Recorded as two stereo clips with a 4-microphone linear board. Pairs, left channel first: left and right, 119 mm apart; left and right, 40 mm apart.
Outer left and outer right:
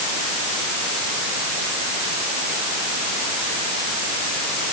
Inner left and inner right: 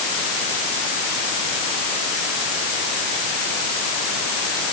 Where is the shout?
I don't hear a shout.